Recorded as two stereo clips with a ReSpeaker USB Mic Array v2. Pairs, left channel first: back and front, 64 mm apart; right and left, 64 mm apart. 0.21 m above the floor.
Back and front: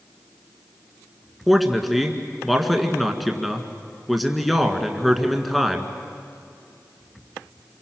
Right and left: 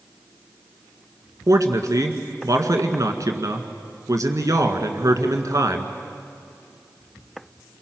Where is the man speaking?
90° left, 1.9 m.